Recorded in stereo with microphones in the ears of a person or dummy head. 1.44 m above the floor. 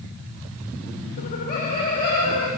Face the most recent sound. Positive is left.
turn(degrees=30)  # may be behind; listen again after turning